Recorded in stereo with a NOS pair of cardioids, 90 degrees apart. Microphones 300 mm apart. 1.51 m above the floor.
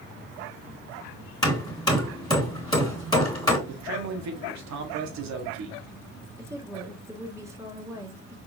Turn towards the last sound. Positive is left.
turn(degrees=-10)